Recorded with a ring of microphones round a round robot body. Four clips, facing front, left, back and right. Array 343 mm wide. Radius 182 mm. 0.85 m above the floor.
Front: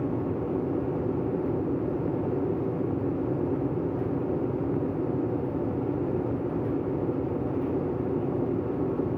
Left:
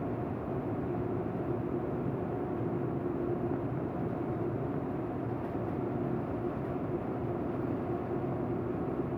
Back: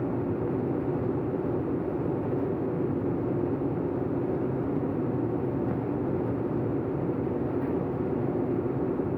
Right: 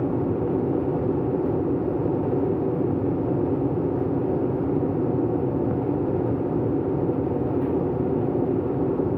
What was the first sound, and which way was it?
An aircraft, 85° right.